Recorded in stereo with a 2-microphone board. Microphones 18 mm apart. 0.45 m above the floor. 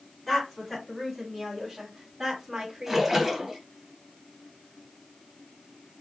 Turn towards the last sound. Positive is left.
turn(degrees=-15)  # may be behind; listen again after turning